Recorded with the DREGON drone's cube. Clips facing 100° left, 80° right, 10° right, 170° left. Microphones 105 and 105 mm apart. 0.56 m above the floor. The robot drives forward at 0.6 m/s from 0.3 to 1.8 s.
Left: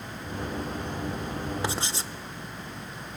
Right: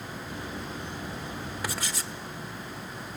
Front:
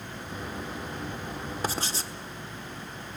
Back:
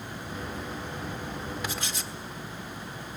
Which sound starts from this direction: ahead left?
Writing, at 1.6 s.